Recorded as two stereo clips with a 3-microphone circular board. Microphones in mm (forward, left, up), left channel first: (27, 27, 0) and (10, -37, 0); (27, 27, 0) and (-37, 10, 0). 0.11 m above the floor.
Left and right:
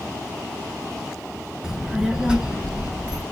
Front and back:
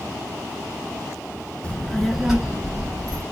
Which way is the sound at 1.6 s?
35° right.